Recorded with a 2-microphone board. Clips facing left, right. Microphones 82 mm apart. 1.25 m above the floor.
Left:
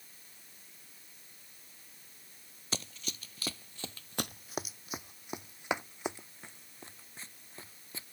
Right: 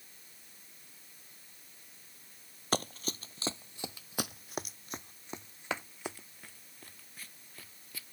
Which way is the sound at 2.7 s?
45° right (ahead or behind).